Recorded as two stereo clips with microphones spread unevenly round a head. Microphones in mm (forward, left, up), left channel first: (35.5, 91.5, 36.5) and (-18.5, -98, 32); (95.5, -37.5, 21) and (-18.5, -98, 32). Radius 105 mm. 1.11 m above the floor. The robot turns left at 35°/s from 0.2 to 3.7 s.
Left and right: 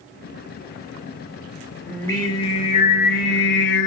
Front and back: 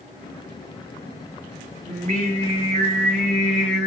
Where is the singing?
155° left, 3 m; by 3.9 s 90° left, 3 m.